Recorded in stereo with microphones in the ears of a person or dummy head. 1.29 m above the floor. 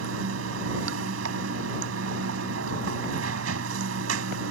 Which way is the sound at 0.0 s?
80° right.